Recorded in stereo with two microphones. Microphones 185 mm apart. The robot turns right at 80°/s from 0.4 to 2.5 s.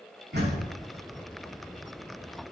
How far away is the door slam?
About 6 m.